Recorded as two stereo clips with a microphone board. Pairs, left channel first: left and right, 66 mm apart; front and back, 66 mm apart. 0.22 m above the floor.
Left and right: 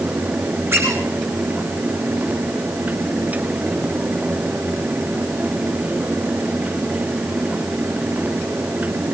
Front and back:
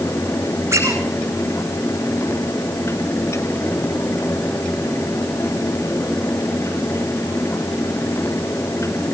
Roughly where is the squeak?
Behind right.